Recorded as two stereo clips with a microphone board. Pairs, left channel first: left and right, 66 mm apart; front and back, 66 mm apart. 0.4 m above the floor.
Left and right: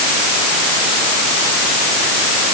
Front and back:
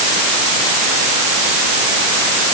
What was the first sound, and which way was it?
Only background noise.